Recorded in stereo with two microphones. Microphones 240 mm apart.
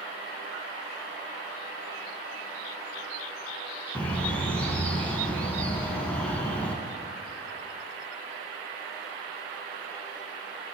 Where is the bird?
5° left (ahead or behind), 0.7 m.